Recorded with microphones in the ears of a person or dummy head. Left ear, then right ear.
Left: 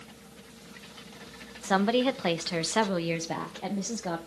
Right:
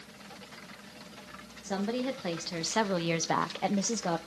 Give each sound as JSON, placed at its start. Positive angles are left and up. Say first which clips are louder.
{"t": 1.6, "sound": "a woman speaking", "louder": "left 8 dB", "side_deg": 35, "distance_m": 1.1}